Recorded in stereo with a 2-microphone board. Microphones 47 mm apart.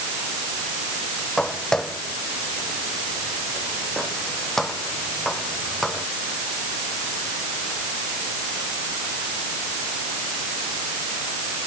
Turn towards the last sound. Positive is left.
turn(degrees=0)  # may be behind; listen again after turning